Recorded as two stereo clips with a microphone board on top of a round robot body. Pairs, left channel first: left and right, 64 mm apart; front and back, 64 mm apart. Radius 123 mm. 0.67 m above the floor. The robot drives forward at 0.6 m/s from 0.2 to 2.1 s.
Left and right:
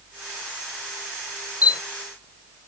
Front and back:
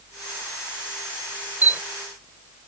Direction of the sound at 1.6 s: 115° left.